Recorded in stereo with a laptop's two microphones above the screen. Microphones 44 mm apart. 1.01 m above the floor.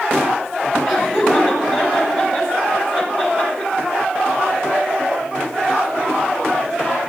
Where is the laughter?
25° right (ahead or behind), 5.5 m.